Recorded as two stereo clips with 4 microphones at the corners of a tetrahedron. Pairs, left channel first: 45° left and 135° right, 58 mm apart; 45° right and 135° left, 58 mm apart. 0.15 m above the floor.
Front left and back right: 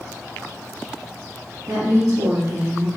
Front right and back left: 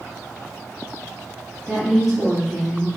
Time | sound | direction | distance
1.7 | a woman speaking | 150° right | 3 m